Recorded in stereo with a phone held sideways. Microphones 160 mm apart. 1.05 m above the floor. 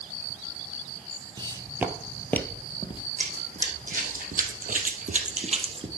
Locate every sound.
1.4 s footsteps: 30° right (ahead or behind), 1.4 m; by 3.0 s 35° left (ahead or behind), 1.8 m
3.2 s running footsteps: 55° right (ahead or behind), 3.5 m; by 5.9 s 35° right (ahead or behind), 2 m